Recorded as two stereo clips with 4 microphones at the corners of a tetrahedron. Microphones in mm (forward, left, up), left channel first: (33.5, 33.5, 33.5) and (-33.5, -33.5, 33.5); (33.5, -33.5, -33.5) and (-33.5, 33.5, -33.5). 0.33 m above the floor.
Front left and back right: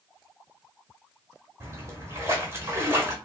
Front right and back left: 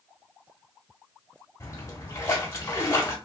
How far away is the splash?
About 1.4 m.